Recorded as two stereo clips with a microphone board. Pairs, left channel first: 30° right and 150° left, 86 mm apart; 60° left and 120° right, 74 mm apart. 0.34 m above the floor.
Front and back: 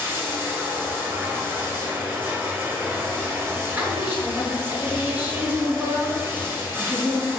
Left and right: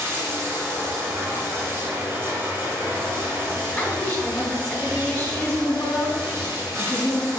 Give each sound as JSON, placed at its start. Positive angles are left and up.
{"t": 0.0, "sound": "running water", "azimuth_deg": -160, "distance_m": 0.7}
{"t": 3.8, "sound": "a woman speaking", "azimuth_deg": 95, "distance_m": 1.0}